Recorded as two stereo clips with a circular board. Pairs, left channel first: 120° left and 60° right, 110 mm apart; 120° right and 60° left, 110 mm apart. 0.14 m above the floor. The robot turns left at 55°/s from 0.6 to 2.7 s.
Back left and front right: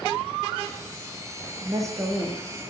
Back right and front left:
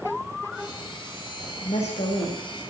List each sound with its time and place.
1.6 s a woman speaking: 105° right, 6 m; by 2.4 s 150° right, 6 m